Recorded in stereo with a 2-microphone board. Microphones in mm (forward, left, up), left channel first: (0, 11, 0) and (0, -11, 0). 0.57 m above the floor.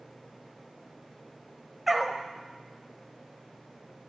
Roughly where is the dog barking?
Centre.